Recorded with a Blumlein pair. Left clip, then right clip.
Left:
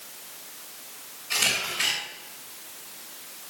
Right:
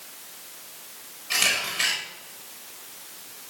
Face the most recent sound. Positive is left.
turn(degrees=-15)